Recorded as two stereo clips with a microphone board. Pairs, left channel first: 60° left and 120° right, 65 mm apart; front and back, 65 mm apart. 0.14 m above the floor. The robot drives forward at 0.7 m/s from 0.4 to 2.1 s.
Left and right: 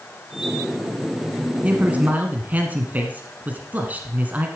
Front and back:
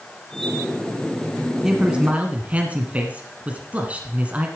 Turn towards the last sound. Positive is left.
turn(degrees=-140)